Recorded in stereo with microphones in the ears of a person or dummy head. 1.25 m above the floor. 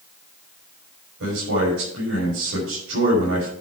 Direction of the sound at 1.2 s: 85° right.